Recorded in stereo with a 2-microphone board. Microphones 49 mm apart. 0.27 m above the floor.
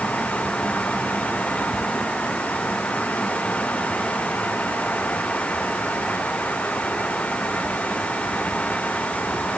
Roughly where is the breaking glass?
No breaking glass in this recording.